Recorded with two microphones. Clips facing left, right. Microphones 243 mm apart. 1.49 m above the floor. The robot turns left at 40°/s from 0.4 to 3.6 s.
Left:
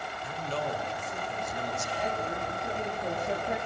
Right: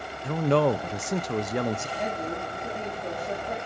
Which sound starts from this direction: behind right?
A woman speaking, at 2.0 s.